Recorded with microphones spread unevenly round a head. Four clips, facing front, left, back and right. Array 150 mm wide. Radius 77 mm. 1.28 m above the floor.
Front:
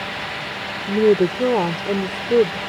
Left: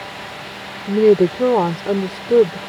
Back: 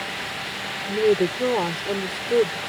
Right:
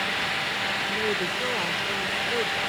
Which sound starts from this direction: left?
A woman speaking, at 0.9 s.